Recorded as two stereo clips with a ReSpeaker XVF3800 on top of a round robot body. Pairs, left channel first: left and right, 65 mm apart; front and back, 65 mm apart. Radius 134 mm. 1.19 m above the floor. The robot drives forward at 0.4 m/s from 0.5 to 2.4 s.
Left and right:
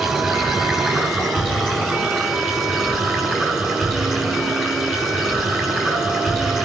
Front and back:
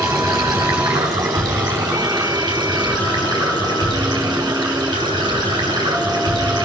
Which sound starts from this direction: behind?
Running water, at 0.0 s.